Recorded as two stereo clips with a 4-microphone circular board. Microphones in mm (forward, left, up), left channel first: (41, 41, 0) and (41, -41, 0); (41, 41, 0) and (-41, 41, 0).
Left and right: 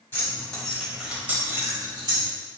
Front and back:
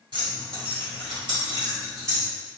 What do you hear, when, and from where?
0.1 s keys jangling: 155° left, 1.6 m; by 2.3 s 120° right, 1.7 m